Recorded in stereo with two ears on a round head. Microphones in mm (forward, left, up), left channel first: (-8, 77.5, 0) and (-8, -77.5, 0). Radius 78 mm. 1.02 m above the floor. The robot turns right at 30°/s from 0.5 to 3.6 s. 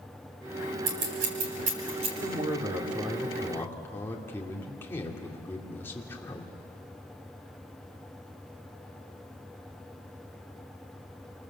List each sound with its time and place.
0.9 s scissors: 70° right (ahead or behind), 4.5 m; by 2.1 s 35° right (ahead or behind), 4.5 m
2.2 s a man speaking: 30° right, 2.5 m; by 6.5 s 15° left, 2.5 m